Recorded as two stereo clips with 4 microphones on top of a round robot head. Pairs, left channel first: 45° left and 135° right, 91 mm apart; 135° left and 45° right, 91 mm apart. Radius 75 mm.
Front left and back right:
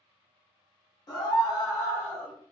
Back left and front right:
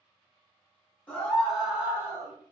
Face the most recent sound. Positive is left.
turn(degrees=-10)